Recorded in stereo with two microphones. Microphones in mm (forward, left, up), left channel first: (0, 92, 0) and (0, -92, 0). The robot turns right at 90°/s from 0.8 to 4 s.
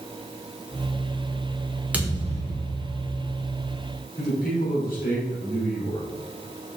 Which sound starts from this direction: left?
A man speaking, at 4.2 s.